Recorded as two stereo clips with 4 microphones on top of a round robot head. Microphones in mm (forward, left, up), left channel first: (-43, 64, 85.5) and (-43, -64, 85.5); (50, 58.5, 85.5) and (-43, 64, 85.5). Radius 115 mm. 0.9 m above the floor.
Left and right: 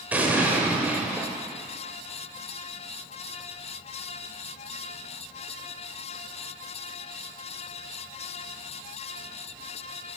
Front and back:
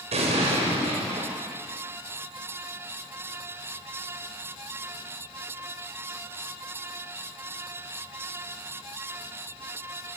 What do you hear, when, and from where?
0.1 s an explosion: 170° right, 1.8 m